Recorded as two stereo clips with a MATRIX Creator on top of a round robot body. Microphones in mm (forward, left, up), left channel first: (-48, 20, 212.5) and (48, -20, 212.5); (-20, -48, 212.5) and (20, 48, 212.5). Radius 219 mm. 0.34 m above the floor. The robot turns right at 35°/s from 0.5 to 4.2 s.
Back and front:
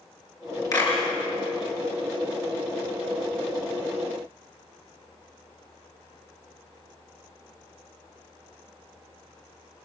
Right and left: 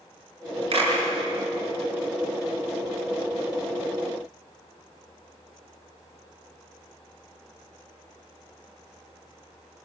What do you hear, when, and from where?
0.7 s a clap: 100° left, 6.5 m; by 0.9 s 110° left, 6.5 m